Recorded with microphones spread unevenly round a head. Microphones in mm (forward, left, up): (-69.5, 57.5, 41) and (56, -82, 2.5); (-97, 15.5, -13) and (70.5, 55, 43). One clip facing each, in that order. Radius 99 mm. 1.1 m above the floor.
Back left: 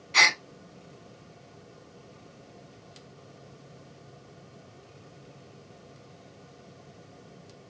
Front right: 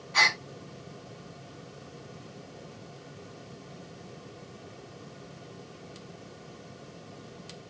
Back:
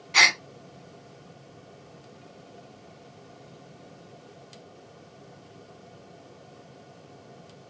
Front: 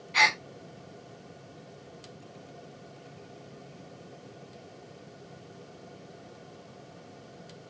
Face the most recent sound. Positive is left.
turn(degrees=-175)